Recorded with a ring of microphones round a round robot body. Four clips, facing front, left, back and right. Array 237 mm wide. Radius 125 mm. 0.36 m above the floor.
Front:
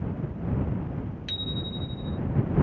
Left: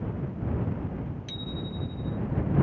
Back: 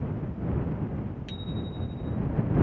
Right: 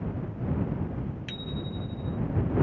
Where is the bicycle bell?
55° right.